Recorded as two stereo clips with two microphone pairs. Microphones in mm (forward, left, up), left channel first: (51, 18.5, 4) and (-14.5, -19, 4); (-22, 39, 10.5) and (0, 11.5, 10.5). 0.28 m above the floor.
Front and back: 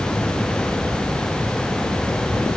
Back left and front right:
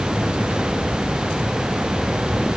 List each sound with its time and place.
Only background noise.